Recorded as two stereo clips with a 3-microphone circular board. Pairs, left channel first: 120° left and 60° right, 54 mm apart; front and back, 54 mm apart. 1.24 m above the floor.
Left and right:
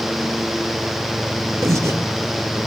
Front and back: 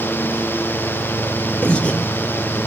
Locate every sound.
1.6 s breathing: 65° right, 0.8 m